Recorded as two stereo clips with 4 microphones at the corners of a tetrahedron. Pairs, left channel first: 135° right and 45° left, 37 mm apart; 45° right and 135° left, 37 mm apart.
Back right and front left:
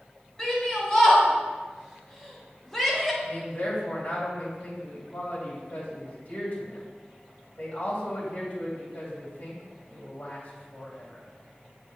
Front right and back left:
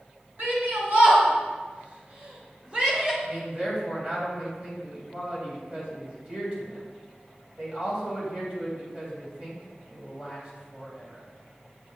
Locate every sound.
0.4 s a shout: 155° left, 3 m; by 3.1 s 150° left, 1.5 m
3.2 s a man speaking: 170° right, 2.5 m